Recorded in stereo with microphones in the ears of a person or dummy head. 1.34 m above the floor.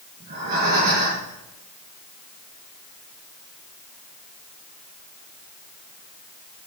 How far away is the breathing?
About 5.5 m.